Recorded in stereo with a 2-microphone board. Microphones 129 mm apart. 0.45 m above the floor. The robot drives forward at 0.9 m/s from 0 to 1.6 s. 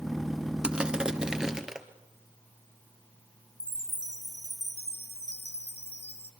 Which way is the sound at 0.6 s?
10° right (ahead or behind).